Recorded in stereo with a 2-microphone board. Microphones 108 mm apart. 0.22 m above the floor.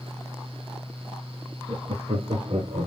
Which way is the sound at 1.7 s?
60° right (ahead or behind).